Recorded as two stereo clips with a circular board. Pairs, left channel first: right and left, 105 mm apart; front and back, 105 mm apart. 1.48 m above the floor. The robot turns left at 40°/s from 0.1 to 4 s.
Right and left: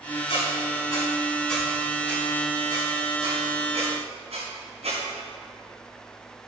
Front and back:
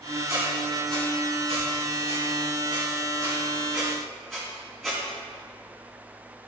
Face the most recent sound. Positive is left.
turn(degrees=90)